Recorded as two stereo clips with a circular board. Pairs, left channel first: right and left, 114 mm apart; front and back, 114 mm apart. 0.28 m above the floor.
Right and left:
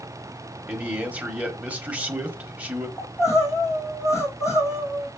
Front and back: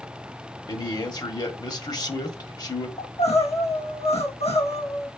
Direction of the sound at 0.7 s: 20° left.